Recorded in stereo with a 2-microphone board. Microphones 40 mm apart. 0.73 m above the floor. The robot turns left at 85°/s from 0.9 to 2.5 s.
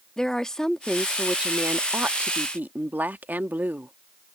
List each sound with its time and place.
0.2 s a woman speaking: 20° left; by 3.9 s 115° right